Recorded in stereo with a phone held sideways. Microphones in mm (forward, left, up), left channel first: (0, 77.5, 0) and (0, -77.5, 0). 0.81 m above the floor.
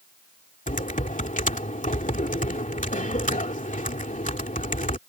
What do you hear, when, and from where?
0.7 s typing on a keyboard: 55° left (ahead or behind)